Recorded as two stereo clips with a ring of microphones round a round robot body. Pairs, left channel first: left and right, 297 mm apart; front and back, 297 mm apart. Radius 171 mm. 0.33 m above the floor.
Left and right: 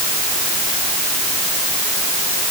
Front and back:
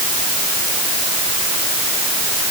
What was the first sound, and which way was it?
Only background noise.